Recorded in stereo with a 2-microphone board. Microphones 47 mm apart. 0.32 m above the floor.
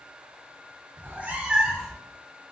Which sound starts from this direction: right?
A cat meowing, at 1.0 s.